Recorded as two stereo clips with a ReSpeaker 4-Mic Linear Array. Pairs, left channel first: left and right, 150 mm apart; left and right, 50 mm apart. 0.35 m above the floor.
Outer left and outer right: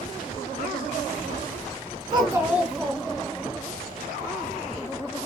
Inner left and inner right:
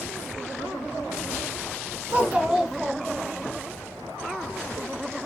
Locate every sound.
2.1 s a child speaking: 30° right (ahead or behind), 1.0 m; by 3.5 s 20° left (ahead or behind), 1.7 m